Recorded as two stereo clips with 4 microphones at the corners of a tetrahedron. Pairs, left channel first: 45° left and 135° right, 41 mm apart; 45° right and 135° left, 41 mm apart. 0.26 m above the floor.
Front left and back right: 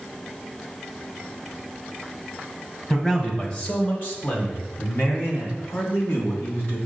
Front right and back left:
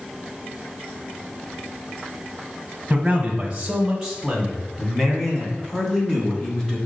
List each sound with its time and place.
2.9 s a man speaking: 100° left, 1.7 m; by 6.8 s 35° left, 3 m